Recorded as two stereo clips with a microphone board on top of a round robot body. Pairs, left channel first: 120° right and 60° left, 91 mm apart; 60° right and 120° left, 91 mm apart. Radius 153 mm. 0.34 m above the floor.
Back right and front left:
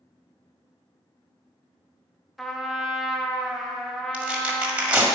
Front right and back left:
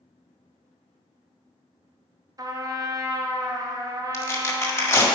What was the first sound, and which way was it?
A trumpet, 150° left.